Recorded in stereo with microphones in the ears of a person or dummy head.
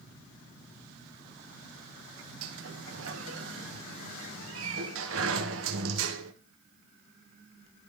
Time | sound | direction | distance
2.4 | a sliding door | 80° right | 1.4 m